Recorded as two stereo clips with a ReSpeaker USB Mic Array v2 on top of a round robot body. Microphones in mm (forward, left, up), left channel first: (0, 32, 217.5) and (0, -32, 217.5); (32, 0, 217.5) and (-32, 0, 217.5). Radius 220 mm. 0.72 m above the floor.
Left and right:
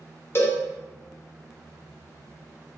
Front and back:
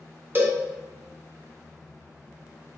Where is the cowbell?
130° left, 0.9 m.